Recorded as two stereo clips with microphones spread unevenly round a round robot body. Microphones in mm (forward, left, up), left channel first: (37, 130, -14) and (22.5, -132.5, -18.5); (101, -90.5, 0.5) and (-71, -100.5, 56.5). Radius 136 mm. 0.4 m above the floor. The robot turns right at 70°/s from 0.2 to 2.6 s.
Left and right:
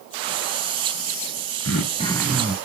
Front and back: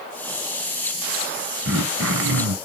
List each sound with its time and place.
1.6 s throat clearing: 130° left, 0.8 m; by 2.5 s 165° right, 0.8 m